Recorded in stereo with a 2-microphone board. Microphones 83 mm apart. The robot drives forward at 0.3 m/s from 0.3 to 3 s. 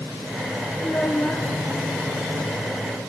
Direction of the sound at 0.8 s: 20° left (ahead or behind).